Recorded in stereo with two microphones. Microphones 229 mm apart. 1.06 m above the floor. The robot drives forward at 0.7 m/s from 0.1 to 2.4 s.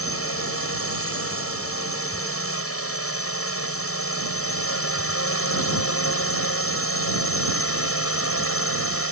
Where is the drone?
75° left (ahead or behind); by 9.1 s 70° left (ahead or behind).